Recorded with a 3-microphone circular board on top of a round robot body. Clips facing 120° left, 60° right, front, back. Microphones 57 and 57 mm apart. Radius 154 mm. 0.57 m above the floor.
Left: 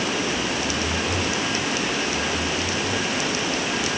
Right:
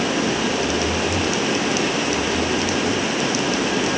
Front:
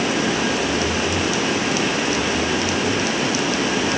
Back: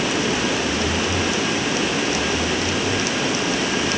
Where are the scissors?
No scissors in this recording.